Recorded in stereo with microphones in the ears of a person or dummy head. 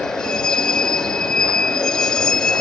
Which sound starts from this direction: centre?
A vehicle, at 0.0 s.